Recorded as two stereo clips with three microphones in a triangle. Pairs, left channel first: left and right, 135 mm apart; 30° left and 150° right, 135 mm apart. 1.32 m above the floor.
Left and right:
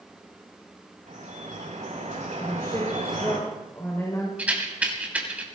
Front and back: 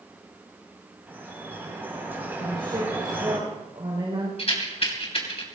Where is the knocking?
No knocking in this recording.